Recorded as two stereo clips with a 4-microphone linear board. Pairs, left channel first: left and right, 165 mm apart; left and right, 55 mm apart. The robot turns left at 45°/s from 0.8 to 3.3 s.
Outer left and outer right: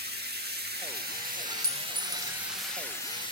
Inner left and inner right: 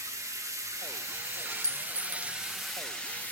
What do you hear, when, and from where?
0.0 s running water: 100° right, 1.6 m; by 3.3 s 150° left, 1.6 m
1.6 s a clink: 70° right (ahead or behind), 1.0 m; by 2.3 s 45° right (ahead or behind), 1.0 m